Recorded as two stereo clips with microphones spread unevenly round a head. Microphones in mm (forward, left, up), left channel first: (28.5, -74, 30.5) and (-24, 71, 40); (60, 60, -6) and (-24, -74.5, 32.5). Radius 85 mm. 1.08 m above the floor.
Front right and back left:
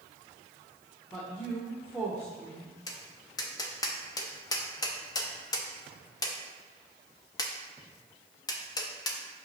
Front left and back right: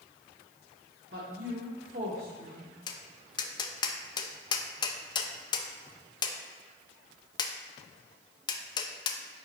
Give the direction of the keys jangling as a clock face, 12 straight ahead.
No keys jangling in this recording.